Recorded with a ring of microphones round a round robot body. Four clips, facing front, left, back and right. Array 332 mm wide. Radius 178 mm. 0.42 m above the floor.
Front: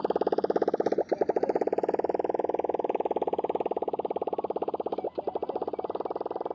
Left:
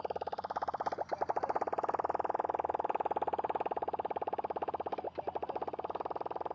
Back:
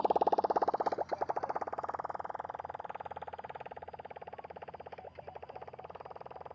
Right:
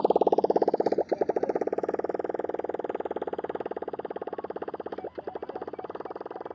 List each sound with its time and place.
0.0 s a motorcycle: 70° right; by 6.5 s 20° right